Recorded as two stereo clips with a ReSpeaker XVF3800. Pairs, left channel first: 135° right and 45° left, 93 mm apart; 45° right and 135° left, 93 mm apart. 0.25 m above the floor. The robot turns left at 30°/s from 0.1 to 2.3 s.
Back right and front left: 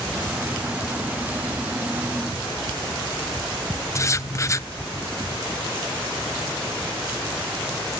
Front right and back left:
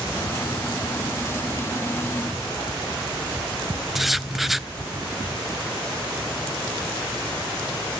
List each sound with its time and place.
4.0 s writing: 140° right, 0.5 m